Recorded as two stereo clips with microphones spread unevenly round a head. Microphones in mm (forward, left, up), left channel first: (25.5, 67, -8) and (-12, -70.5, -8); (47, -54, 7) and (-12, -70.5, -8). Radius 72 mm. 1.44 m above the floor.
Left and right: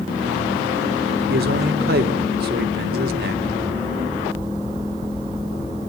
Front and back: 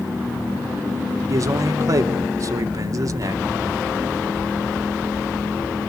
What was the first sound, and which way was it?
A man speaking, 130° right.